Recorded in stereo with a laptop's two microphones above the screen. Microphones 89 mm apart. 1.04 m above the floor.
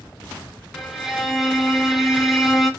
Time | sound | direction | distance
0.7 | a violin | 5° right (ahead or behind) | 1.1 m